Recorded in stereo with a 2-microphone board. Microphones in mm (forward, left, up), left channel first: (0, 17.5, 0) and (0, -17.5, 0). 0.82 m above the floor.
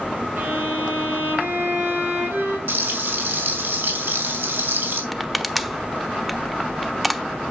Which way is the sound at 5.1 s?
Centre (ahead or behind).